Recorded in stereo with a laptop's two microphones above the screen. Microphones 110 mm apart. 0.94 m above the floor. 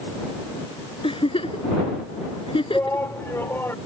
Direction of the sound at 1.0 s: 55° left (ahead or behind).